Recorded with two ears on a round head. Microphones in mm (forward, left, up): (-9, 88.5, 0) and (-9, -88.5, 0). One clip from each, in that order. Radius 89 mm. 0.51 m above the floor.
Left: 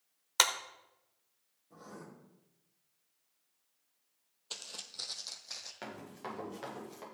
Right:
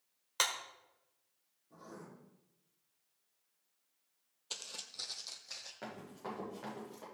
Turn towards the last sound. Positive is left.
turn(degrees=60)  # may be behind; listen again after turning